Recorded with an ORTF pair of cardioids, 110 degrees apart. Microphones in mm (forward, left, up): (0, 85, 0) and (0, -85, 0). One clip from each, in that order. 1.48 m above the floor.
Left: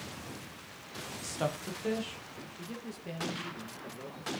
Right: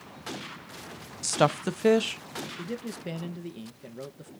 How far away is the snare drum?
No snare drum in this recording.